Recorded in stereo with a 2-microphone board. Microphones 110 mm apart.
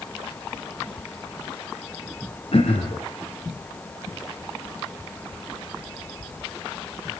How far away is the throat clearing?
About 4.5 m.